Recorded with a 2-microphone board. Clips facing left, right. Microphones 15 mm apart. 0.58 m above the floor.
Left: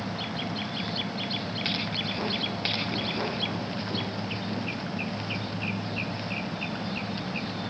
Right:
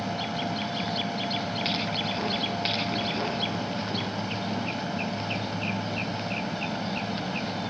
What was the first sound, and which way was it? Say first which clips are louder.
An aircraft: right 3 dB; 50° right (ahead or behind).